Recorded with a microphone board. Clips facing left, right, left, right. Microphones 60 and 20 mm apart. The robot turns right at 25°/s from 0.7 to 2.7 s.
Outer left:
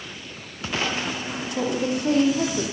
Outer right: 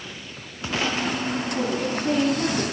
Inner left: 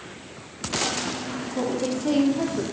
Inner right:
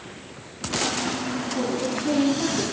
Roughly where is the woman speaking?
Left.